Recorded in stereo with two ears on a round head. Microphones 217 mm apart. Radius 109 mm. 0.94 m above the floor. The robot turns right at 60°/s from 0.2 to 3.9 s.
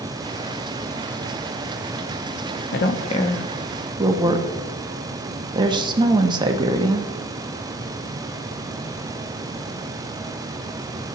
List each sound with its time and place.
2.7 s a woman speaking: 50° left (ahead or behind), 1.1 m; by 7.1 s 20° right (ahead or behind), 1.1 m